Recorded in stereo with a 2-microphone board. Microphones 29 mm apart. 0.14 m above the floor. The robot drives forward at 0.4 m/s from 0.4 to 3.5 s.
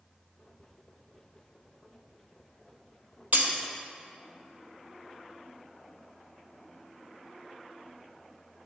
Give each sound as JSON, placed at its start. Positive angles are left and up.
{"t": 3.3, "sound": "breaking glass", "side_deg": -65, "distance_m": 1.0}